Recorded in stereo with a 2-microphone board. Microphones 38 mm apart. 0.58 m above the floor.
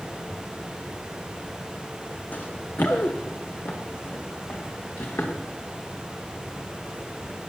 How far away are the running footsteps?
About 1.4 m.